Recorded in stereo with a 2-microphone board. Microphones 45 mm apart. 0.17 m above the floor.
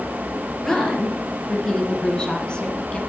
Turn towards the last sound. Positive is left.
turn(degrees=25)  # may be behind; listen again after turning